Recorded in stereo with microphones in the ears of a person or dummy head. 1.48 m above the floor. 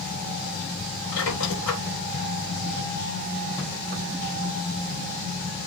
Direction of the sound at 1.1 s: 85° left.